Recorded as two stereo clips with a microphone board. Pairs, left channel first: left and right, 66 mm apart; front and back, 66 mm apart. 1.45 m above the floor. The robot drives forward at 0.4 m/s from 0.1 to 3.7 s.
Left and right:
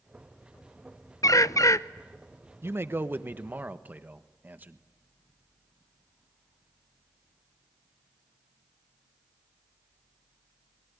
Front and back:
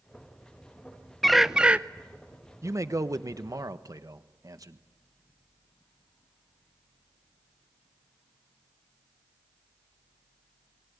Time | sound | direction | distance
1.2 | a bird | 85° left | 0.5 m
2.6 | a man speaking | 140° right | 0.9 m